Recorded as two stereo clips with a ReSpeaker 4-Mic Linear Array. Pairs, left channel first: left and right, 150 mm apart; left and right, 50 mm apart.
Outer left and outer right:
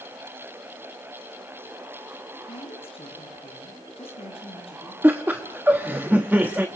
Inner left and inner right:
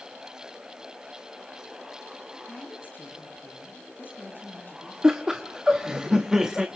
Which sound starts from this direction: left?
A woman speaking, at 2.5 s.